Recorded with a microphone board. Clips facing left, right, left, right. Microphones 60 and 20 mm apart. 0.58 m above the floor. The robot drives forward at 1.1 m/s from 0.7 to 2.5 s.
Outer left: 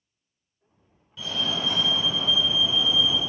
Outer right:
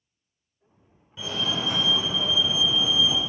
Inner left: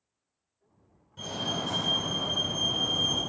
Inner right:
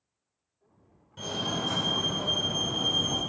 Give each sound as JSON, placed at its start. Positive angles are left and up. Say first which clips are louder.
{"t": 1.2, "sound": "a fire alarm", "louder": "even, inner right 1 dB", "side_deg": -20, "distance_m": 3.5}